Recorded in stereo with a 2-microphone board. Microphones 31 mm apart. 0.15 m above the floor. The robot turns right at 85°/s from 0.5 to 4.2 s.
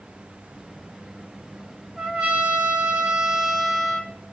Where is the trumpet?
145° right, 2.5 m; by 4.1 s 40° left, 2.5 m.